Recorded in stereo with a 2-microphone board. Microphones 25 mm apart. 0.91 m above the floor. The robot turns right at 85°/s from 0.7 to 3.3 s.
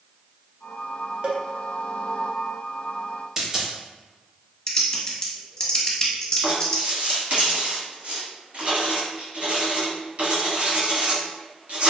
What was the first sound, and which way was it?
A cowbell, 40° right (ahead or behind).